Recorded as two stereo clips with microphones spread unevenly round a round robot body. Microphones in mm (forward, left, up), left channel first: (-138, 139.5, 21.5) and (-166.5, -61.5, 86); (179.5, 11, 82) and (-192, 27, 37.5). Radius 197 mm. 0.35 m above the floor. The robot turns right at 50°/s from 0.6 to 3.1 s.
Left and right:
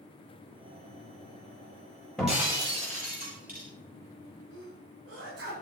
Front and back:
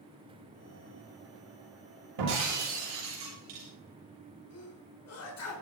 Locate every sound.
2.2 s breaking glass: 170° left, 7.5 m; by 3.7 s 145° right, 7.5 m
4.5 s a sneeze: 55° right, 4.5 m